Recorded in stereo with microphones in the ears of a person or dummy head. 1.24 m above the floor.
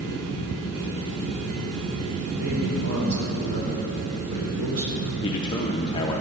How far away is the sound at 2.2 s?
About 2.5 m.